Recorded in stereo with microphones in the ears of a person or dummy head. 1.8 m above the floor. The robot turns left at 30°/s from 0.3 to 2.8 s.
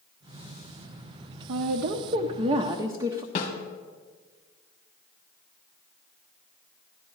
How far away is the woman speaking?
About 0.6 m.